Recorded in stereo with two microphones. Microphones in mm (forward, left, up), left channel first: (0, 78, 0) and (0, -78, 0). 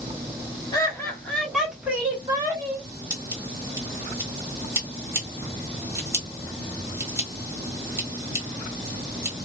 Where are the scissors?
20° right (ahead or behind), 1.4 m.